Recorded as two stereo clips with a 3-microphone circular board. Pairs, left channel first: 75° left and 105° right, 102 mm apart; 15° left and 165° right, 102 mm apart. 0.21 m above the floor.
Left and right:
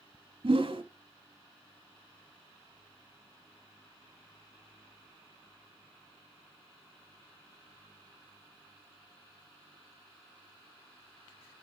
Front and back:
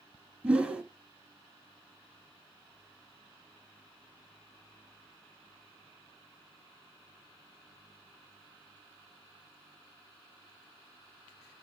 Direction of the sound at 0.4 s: 85° right.